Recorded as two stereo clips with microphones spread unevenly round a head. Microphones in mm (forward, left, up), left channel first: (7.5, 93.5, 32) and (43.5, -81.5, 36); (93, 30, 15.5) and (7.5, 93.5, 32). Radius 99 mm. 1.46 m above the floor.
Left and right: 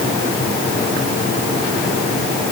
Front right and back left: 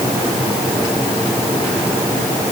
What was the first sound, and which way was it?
Only background noise.